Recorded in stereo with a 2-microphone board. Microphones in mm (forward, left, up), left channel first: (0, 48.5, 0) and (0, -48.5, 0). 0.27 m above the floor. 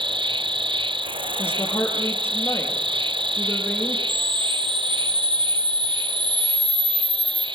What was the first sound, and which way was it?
An insect, 60° right (ahead or behind).